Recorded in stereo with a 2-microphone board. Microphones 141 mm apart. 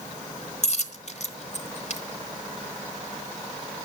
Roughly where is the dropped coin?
Left.